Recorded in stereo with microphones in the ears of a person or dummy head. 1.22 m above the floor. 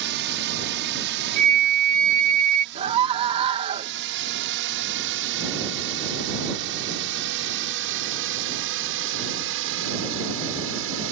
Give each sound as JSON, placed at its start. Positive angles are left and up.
{"t": 0.0, "sound": "a drone", "side_deg": -60}
{"t": 1.4, "sound": "a flute", "side_deg": -45}
{"t": 2.8, "sound": "a scream", "side_deg": -35}